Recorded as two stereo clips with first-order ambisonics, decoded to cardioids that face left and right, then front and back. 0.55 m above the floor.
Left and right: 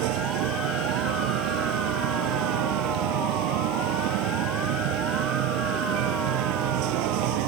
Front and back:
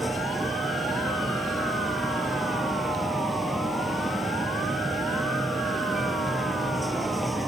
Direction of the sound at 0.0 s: 95° right.